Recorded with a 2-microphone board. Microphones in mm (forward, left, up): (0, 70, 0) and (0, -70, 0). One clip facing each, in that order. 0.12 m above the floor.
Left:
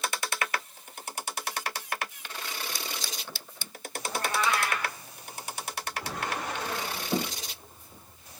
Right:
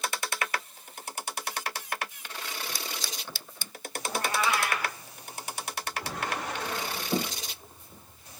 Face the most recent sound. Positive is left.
turn(degrees=-10)  # may be behind; listen again after turning